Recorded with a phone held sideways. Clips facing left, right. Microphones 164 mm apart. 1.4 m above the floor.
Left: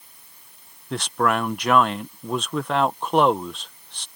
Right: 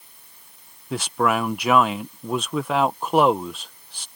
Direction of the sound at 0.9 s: 5° right (ahead or behind).